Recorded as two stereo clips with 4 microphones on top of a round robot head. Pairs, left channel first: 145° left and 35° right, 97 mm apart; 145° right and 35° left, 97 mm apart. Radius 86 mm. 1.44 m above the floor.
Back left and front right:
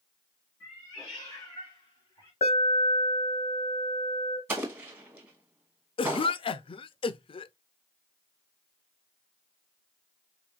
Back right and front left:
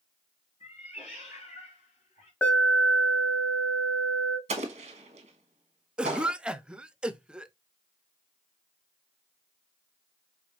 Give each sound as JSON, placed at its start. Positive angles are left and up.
{"t": 0.6, "sound": "a cat meowing", "azimuth_deg": -145, "distance_m": 3.5}
{"t": 2.4, "sound": "an alarm", "azimuth_deg": 140, "distance_m": 1.1}
{"t": 4.5, "sound": "an explosion", "azimuth_deg": 35, "distance_m": 1.0}
{"t": 6.0, "sound": "a cough", "azimuth_deg": 115, "distance_m": 0.5}